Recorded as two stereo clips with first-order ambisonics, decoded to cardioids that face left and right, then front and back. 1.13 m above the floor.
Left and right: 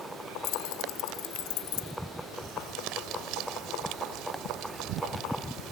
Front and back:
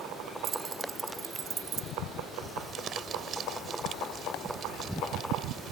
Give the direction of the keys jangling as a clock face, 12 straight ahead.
8 o'clock.